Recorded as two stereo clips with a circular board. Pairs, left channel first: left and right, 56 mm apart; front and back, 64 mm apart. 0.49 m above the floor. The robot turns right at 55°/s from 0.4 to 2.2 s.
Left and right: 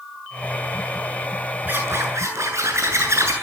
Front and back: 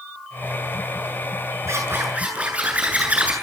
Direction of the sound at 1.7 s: 140° right.